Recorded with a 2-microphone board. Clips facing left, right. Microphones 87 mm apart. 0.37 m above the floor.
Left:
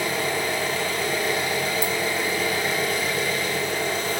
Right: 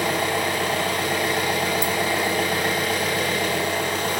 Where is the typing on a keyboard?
I don't hear typing on a keyboard.